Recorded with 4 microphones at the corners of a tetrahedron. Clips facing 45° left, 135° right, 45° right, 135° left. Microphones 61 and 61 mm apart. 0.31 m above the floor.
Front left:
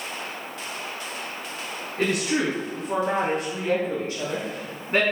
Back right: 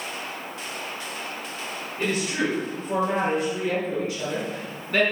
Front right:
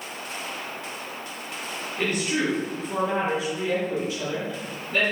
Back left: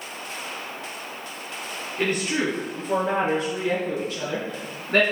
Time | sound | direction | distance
2.0 | a woman speaking | 70° left | 4 m